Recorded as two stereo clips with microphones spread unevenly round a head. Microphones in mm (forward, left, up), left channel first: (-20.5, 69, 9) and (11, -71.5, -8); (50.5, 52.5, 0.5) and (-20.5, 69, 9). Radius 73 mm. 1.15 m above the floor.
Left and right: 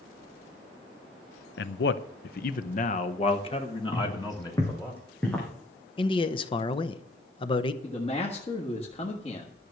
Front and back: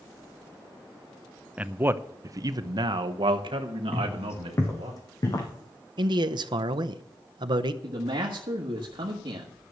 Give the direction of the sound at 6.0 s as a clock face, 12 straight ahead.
7 o'clock.